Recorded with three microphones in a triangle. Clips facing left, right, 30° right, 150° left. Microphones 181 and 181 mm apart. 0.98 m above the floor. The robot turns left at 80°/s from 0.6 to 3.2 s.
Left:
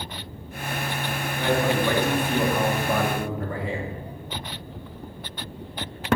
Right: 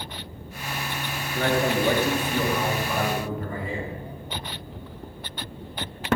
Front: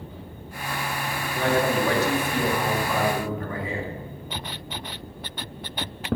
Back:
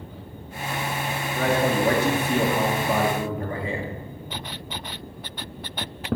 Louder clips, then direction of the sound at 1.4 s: Even, even; 120° right.